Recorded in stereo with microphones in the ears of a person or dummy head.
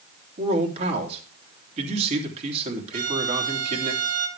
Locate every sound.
0.4 s a man speaking: 35° right (ahead or behind), 3 m
2.9 s a violin: 80° right, 2 m